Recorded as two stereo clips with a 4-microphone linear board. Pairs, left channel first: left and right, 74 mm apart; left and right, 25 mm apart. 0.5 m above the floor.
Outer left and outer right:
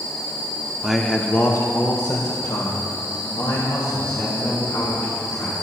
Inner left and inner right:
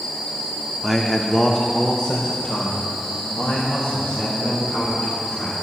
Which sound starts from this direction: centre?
A man speaking, at 0.8 s.